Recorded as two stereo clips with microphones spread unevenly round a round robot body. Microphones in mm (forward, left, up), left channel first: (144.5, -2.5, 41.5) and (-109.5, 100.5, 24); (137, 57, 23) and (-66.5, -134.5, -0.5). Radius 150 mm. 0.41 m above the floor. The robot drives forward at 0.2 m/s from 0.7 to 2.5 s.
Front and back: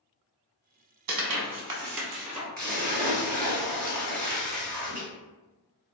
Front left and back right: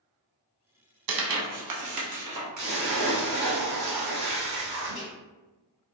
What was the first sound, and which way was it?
Tearing paper, 165° right.